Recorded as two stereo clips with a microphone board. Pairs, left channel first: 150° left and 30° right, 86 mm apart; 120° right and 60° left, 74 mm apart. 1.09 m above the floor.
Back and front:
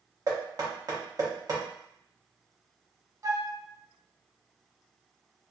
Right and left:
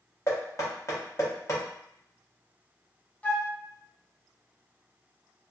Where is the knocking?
70° right, 1.1 m.